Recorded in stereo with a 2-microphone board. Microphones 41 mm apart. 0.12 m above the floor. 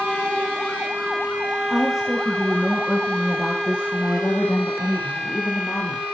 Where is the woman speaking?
10° right (ahead or behind), 5.5 m; by 6.1 s 60° left (ahead or behind), 6.5 m.